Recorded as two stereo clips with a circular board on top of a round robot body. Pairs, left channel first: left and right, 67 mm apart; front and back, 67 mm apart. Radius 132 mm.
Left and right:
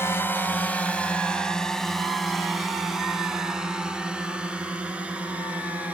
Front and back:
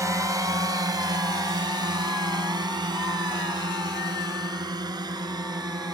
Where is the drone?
140° left; by 6.0 s 160° right.